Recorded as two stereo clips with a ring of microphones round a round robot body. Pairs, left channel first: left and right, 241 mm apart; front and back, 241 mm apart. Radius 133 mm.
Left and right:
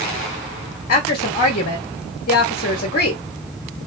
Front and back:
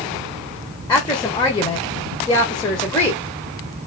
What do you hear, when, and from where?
0.9 s a woman speaking: 65° left, 1.0 m